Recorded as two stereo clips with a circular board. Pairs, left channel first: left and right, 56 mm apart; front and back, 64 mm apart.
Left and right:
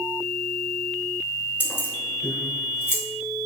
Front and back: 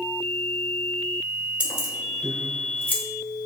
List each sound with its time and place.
1.6 s keys jangling: 120° left, 1.0 m; by 3.0 s 55° left, 1.8 m